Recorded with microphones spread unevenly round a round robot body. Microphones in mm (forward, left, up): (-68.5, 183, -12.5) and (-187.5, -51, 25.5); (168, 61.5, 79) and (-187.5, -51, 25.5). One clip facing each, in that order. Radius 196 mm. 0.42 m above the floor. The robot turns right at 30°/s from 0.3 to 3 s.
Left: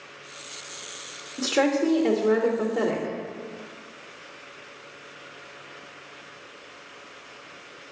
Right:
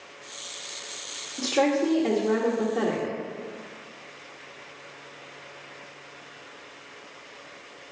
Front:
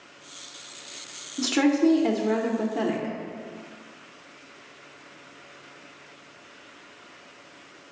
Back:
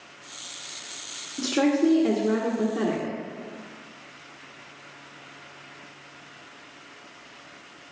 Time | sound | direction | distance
1.4 | a woman speaking | 65° left | 1.0 m